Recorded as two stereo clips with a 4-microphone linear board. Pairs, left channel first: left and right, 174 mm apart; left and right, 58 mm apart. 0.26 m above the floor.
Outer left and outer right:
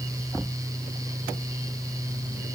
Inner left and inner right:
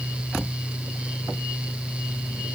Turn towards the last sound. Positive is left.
No sound to turn to.